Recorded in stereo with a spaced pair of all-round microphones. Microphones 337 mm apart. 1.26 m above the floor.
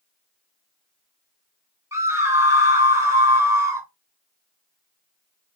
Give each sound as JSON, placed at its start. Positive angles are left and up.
{"t": 1.9, "sound": "a scream", "side_deg": -10, "distance_m": 1.0}